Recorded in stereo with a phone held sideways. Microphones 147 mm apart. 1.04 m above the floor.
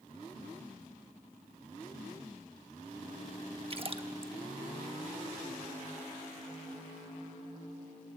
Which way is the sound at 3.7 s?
40° right (ahead or behind).